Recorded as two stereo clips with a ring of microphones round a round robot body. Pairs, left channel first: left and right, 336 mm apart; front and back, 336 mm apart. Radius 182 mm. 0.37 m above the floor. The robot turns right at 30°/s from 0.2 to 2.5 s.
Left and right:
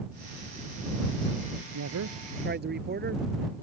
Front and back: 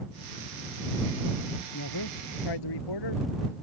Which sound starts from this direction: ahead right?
A man speaking, at 1.7 s.